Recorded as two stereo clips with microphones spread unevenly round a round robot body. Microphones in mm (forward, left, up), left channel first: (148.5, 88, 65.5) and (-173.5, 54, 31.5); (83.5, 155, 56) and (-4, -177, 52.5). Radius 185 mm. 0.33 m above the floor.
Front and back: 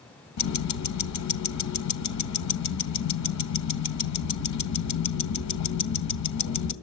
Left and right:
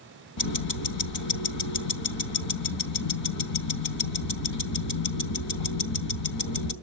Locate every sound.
0.4 s ticking: 45° left, 2 m